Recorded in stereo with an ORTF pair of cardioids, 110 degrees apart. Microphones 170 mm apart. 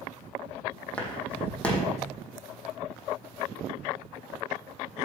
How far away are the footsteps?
About 3.5 m.